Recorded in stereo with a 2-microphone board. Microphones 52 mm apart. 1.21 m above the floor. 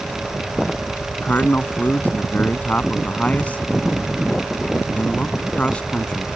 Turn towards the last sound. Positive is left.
turn(degrees=20)  # may be behind; listen again after turning